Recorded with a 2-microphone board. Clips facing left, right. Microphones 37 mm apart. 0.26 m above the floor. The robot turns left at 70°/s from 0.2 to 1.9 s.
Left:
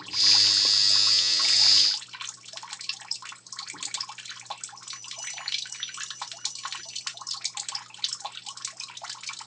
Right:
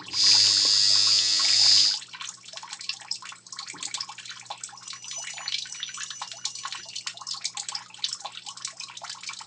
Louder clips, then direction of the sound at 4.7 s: Even; 60° right (ahead or behind).